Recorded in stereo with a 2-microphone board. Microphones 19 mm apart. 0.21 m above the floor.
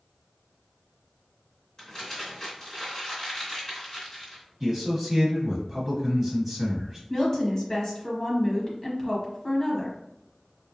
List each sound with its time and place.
1.8 s crumpling: 30° left (ahead or behind), 1.8 m
4.6 s a man speaking: 10° right (ahead or behind), 1.2 m
7.1 s a woman speaking: 20° left (ahead or behind), 1.1 m